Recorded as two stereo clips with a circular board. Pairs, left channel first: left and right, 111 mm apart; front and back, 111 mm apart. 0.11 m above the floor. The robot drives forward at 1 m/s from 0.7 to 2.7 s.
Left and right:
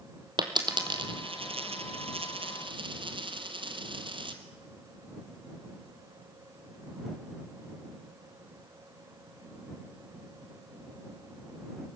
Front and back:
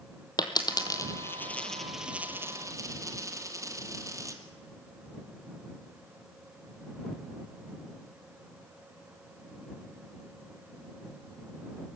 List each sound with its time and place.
0.4 s a dropped coin: 50° right, 1.8 m; by 4.4 s 125° right, 1.7 m